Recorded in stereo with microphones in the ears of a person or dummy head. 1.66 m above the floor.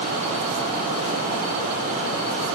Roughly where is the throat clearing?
No throat clearing in this recording.